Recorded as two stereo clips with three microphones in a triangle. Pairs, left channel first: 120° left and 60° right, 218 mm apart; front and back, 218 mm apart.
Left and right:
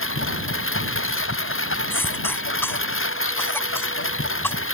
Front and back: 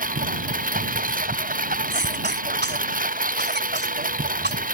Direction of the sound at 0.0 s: 130° left.